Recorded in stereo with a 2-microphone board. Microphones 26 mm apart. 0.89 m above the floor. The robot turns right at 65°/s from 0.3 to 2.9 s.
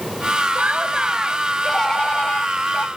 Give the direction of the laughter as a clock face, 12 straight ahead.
2 o'clock.